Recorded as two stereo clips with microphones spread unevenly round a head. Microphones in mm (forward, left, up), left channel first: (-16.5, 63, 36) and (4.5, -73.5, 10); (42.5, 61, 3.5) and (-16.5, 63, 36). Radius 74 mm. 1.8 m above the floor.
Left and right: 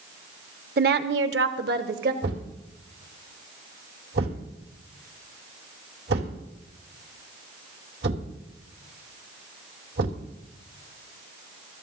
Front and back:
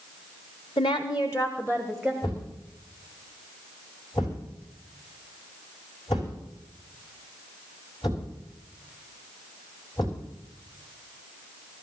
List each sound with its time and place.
0.8 s a woman speaking: 50° right, 0.9 m; by 2.1 s 105° right, 1.5 m
2.2 s a thud: 70° right, 3 m